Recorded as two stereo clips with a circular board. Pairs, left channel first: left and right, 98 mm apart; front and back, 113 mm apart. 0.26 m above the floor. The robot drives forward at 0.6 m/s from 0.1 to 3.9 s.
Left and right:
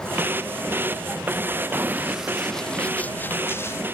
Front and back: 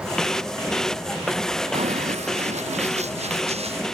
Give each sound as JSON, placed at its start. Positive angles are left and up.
{"t": 1.7, "sound": "running footsteps", "azimuth_deg": -160}